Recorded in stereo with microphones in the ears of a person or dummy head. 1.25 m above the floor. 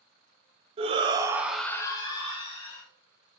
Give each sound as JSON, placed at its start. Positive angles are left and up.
{"t": 0.8, "sound": "a shout", "side_deg": -35, "distance_m": 0.7}